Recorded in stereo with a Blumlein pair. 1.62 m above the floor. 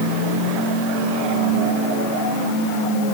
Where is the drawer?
I don't hear a drawer.